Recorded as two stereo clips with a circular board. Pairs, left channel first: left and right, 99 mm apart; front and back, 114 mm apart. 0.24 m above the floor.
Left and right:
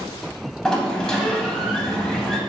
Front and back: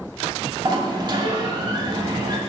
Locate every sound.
0.7 s a sliding door: 170° left, 0.6 m